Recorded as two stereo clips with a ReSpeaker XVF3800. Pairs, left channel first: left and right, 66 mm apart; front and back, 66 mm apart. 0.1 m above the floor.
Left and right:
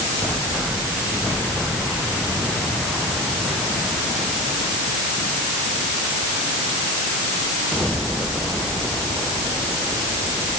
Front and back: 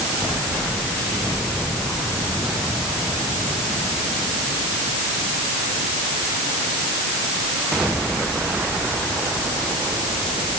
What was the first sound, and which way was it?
Only background noise.